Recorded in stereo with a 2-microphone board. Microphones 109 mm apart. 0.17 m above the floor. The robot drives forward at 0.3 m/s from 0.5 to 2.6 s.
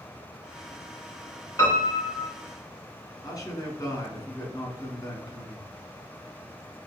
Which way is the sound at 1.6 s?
35° left (ahead or behind).